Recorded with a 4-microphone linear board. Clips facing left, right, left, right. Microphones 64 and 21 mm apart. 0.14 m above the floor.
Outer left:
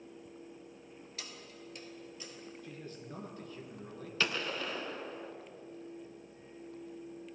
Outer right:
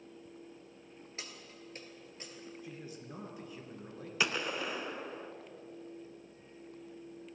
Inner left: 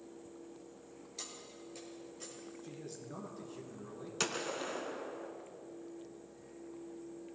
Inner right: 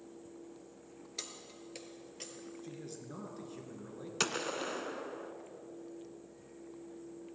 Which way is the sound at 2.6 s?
10° right (ahead or behind).